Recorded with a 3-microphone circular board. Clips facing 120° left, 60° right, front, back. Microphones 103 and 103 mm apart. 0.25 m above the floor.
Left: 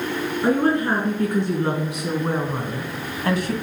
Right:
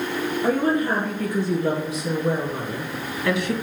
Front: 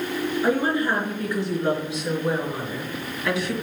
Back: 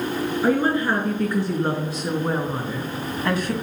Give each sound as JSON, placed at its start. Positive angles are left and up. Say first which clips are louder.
{"t": 0.4, "sound": "a woman speaking", "louder": "left 2 dB, back 2 dB", "azimuth_deg": 125, "distance_m": 4.0}